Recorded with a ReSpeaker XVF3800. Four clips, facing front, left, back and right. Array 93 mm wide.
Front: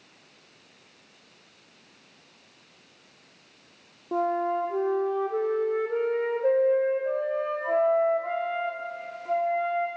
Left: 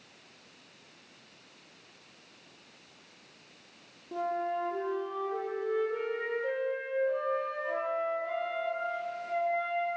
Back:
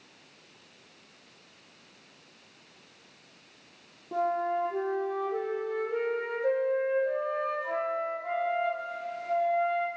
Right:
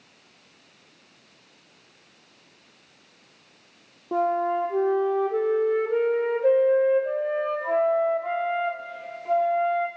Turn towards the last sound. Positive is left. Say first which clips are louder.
# right 9 dB, front 3 dB
turn(degrees=-60)